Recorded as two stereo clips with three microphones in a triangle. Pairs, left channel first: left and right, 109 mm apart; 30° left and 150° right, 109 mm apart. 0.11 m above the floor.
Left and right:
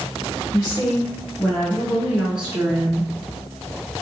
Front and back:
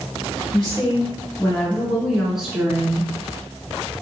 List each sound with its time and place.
0.5 s a woman speaking: 50° left, 1.4 m; by 3.1 s 115° right, 1.2 m